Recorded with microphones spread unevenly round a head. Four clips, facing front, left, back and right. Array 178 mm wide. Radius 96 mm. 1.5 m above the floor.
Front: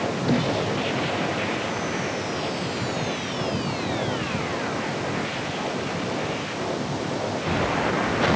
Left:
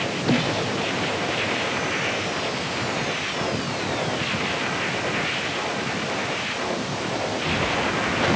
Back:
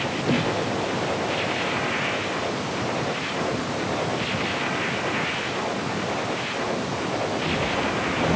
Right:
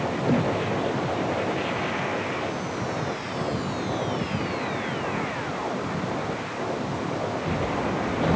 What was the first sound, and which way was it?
Only background noise.